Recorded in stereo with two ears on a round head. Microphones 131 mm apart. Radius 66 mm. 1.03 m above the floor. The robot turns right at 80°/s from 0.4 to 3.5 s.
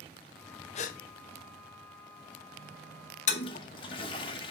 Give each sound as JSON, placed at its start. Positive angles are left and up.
{"t": 0.8, "sound": "a gasp", "side_deg": 45, "distance_m": 0.5}
{"t": 3.3, "sound": "a toilet flushing", "side_deg": 50, "distance_m": 0.9}